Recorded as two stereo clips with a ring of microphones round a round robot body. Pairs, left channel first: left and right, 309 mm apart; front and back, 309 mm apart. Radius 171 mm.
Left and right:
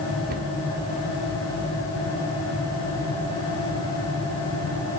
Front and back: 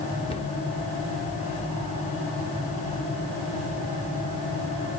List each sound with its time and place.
0.3 s a cupboard door: 60° right, 0.9 m